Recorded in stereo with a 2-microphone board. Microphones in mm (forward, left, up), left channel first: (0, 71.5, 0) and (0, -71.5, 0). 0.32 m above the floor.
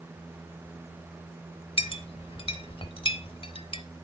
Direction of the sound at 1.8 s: 40° left (ahead or behind).